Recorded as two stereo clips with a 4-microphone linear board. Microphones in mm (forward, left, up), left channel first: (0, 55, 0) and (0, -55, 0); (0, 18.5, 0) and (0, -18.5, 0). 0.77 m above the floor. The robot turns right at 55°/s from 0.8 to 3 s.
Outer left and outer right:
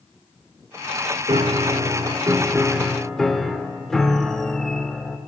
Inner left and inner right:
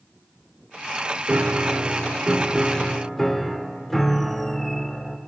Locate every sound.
1.3 s a piano: 90° right, 0.6 m; by 5.2 s 5° left, 0.6 m